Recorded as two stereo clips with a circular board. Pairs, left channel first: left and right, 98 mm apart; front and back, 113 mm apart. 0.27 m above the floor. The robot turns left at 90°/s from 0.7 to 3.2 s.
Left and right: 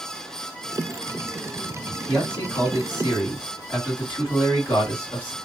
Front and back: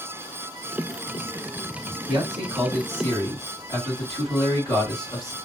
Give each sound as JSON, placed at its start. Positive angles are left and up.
{"t": 2.1, "sound": "a man speaking", "azimuth_deg": 145, "distance_m": 1.9}